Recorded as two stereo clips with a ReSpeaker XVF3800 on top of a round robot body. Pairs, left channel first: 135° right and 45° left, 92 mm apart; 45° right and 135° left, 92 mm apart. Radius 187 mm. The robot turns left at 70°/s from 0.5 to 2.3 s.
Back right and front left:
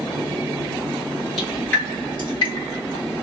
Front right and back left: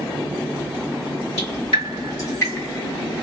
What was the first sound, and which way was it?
Dripping, 40° right.